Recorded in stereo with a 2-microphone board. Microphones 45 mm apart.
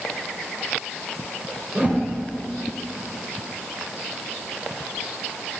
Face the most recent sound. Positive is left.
turn(degrees=-30)  # may be behind; listen again after turning